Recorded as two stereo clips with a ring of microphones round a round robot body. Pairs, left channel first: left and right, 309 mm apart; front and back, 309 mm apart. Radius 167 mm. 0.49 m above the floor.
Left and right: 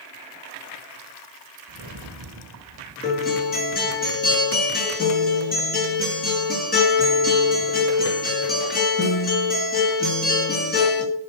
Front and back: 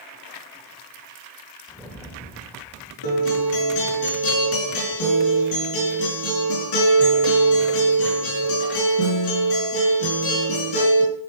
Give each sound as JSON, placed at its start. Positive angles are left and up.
{"t": 1.7, "sound": "a rattle", "azimuth_deg": -85, "distance_m": 2.0}
{"t": 3.0, "sound": "a guitar", "azimuth_deg": 30, "distance_m": 6.5}